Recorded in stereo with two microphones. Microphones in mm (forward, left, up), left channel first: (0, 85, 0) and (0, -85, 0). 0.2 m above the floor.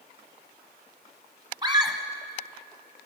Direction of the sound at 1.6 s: 25° right (ahead or behind).